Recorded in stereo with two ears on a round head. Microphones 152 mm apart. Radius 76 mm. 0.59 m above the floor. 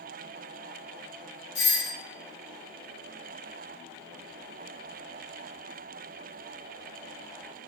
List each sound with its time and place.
1.6 s a doorbell: 35° left (ahead or behind), 1.6 m